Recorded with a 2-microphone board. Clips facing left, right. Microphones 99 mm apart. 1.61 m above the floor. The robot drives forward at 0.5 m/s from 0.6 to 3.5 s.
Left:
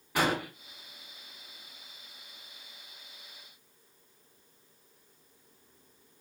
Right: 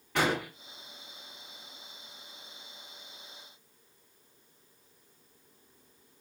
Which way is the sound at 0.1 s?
10° left (ahead or behind).